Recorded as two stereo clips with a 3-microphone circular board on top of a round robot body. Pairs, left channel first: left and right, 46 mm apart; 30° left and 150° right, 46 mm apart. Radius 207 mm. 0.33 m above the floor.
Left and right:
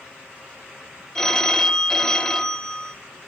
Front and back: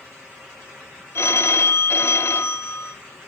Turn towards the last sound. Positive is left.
turn(degrees=10)